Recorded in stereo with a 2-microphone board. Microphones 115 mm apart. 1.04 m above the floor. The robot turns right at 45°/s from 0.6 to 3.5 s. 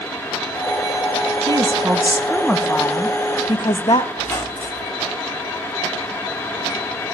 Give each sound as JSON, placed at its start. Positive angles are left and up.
{"t": 1.5, "sound": "a woman speaking", "azimuth_deg": -40, "distance_m": 1.2}
{"t": 4.2, "sound": "a squeak", "side_deg": 25, "distance_m": 2.5}